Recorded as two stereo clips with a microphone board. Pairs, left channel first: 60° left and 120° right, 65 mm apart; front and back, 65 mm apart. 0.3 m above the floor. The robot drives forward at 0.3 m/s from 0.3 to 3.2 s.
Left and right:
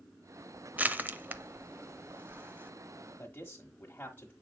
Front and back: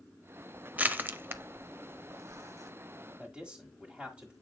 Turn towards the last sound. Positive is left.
turn(degrees=115)